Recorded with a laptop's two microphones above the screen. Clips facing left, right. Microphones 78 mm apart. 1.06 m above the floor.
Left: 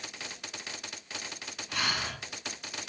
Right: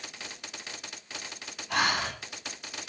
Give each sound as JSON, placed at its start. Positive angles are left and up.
{"t": 1.7, "sound": "breathing", "side_deg": -70, "distance_m": 8.0}